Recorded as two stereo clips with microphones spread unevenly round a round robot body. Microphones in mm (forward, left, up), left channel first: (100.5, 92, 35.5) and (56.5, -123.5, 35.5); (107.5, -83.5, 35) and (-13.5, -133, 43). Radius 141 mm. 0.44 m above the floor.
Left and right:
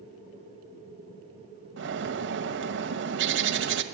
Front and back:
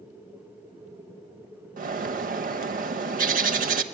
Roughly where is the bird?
Behind right.